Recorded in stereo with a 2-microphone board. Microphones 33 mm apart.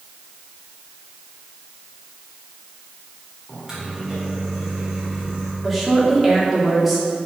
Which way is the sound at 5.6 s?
Centre (ahead or behind).